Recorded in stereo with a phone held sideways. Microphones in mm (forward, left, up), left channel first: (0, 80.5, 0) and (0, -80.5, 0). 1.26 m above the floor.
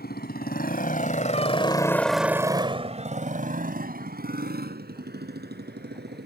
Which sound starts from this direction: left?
A motorcycle, at 0.0 s.